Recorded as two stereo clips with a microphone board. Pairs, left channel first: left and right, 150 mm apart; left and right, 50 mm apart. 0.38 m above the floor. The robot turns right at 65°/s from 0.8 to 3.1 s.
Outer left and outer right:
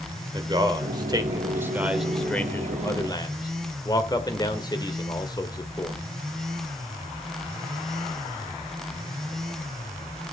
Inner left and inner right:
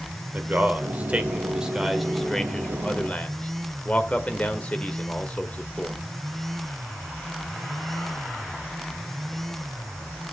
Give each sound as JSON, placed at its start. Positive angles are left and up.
{"t": 0.3, "sound": "a man speaking", "side_deg": -30, "distance_m": 1.5}